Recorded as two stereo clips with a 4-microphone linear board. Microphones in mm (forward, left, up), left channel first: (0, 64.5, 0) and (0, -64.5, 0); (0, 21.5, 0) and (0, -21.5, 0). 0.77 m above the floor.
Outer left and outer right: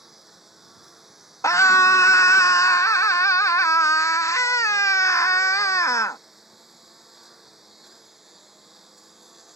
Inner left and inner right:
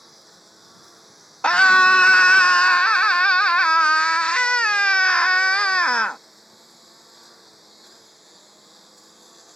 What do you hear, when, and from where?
0.0 s a lawn mower: centre (ahead or behind)
1.4 s a scream: 25° left (ahead or behind)